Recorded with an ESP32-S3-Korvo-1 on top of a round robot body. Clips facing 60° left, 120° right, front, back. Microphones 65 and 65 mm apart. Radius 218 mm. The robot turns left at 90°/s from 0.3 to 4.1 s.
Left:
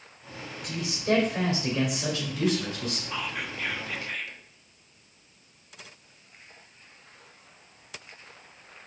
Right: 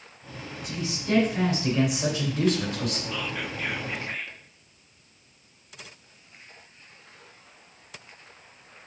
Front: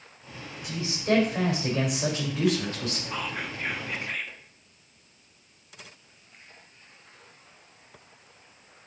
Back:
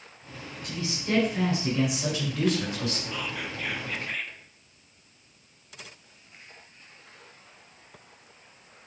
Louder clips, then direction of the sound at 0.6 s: Left 3 dB, front 5 dB; 80° left.